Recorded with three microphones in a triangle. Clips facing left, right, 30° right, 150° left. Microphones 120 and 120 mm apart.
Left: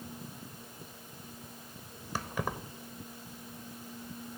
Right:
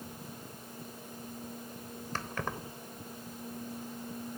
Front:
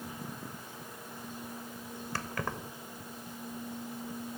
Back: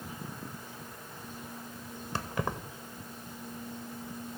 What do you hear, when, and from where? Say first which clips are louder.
2.1 s keys jangling: left 2 dB, back 3 dB; 145° left, 0.6 m